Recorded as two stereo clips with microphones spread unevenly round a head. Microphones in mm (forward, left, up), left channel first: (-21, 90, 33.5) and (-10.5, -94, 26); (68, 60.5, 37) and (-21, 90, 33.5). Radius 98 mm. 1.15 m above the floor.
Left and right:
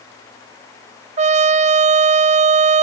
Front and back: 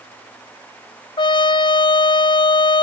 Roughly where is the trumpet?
Ahead right.